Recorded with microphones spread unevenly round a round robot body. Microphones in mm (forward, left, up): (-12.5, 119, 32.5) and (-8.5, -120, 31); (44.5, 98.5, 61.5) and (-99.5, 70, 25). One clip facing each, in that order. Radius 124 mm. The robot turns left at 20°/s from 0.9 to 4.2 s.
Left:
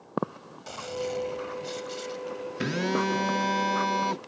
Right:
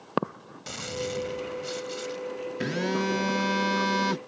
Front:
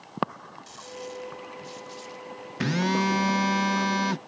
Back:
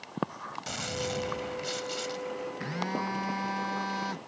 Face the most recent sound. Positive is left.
turn(degrees=-25)